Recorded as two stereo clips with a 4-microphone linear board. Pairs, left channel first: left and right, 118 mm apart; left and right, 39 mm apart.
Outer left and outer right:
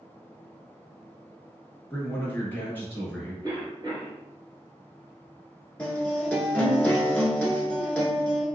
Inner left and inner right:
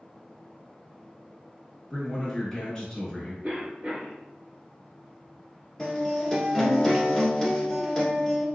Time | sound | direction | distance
1.9 | a man speaking | 15° left (ahead or behind) | 1.2 m
3.4 | a cough | 35° right (ahead or behind) | 1.3 m
5.8 | a guitar | 10° left (ahead or behind) | 1.3 m